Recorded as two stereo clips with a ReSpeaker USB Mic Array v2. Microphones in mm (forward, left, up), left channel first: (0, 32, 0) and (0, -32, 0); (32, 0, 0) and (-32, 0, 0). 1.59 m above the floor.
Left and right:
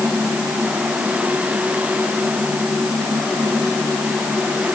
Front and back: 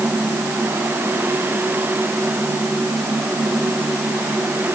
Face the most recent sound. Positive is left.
No sound to turn to.